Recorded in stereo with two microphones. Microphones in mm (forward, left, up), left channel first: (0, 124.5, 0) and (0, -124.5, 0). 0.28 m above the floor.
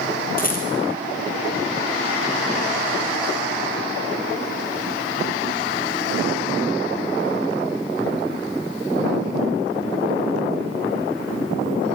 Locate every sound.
0.4 s a rattle: 35° left (ahead or behind), 5 m